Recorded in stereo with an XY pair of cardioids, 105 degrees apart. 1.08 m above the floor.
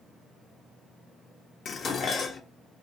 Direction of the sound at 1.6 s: 45° left.